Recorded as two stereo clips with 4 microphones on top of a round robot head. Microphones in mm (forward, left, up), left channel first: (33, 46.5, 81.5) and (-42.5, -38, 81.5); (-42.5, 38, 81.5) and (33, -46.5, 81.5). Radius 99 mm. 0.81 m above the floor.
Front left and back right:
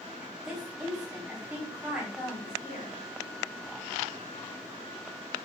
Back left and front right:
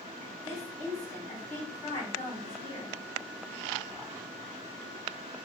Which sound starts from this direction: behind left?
A woman speaking, at 0.2 s.